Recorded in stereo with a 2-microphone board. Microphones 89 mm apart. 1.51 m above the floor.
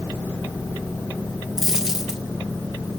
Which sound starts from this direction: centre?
A dropped coin, at 1.6 s.